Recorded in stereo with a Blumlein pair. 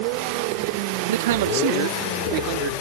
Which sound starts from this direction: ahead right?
A man speaking, at 1.1 s.